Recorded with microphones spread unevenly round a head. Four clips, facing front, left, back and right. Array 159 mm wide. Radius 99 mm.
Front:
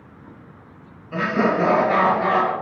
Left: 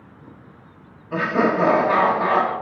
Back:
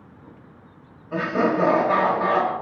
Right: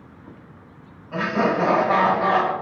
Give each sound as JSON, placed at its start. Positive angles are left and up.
{"t": 1.1, "sound": "laughter", "azimuth_deg": 120, "distance_m": 1.0}